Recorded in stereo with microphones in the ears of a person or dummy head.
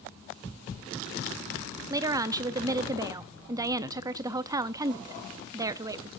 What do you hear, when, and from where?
1.9 s a woman speaking: 20° right (ahead or behind), 0.6 m